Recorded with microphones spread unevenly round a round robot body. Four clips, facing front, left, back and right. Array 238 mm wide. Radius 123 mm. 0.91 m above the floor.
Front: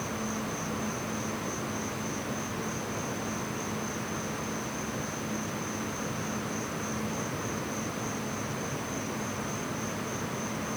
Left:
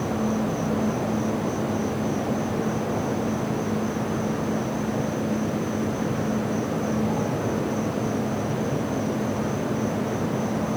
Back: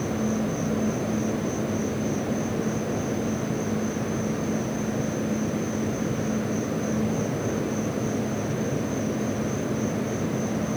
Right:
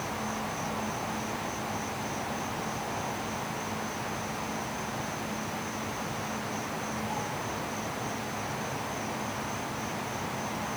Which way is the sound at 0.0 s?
130° left.